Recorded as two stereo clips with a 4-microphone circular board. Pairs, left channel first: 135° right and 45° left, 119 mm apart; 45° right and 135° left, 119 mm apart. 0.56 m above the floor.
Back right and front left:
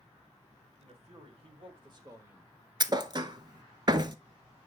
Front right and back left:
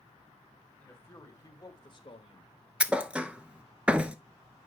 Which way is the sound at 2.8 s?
60° left.